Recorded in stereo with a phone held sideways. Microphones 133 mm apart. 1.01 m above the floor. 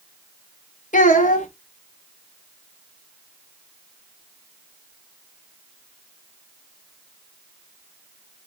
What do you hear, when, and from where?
0.9 s a child speaking: 75° left (ahead or behind), 0.9 m